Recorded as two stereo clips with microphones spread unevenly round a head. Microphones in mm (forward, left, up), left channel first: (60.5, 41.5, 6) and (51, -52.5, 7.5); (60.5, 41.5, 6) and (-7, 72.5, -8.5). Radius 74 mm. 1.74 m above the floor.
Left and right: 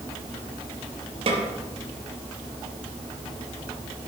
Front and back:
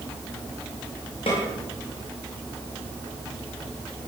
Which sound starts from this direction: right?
A snare drum, at 1.3 s.